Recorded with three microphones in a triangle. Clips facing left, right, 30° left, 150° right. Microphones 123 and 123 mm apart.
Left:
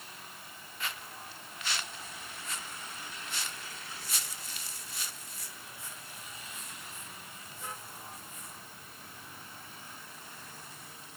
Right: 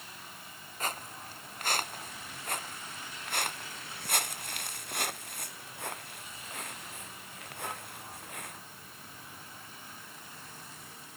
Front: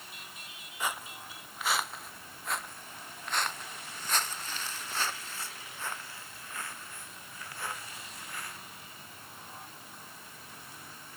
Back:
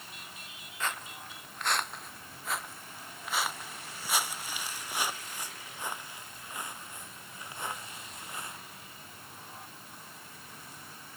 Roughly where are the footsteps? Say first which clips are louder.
Right 5 dB, front 1 dB; ahead right.